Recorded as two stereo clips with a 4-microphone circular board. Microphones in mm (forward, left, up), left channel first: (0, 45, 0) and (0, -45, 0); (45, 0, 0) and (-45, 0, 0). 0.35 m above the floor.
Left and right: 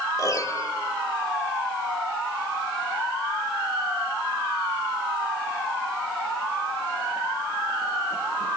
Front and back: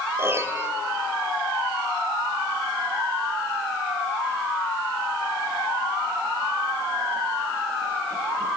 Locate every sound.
0.2 s a piano: 125° left, 1.1 m